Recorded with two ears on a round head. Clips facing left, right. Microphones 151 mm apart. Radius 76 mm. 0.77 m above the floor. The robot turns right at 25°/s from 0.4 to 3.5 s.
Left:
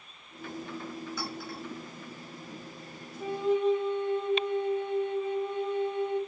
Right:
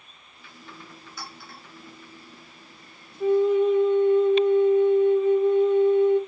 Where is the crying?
I don't hear crying.